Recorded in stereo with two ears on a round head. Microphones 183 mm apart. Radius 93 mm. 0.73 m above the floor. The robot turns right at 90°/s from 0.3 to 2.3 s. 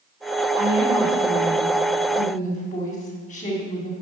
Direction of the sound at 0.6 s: 15° right.